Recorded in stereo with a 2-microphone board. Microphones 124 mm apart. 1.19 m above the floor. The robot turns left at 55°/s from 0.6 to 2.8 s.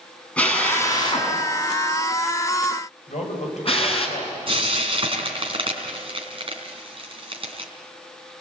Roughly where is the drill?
Centre.